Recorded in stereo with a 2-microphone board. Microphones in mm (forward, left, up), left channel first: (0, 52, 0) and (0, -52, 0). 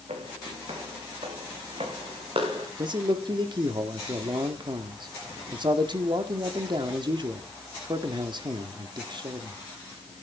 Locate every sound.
0.1 s footsteps: 75° right (ahead or behind), 4.5 m; by 2.7 s 60° right (ahead or behind), 3.5 m
2.8 s a man speaking: 45° right (ahead or behind), 1.4 m